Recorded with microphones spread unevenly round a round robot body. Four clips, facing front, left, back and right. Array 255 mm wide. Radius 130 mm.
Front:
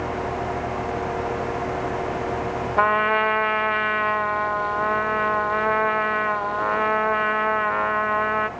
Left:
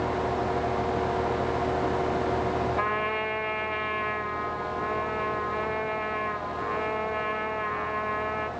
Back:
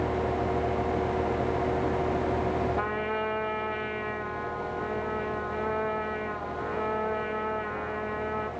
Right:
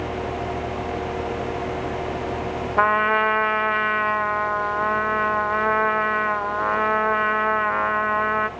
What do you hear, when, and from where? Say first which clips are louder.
2.8 s a trumpet: right 9 dB, front 10 dB; 65° right, 0.7 m